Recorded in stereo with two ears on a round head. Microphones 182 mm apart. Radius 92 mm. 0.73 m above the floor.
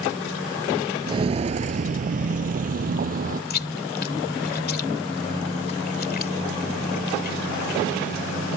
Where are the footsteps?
25° right (ahead or behind); by 3.4 s 40° right (ahead or behind).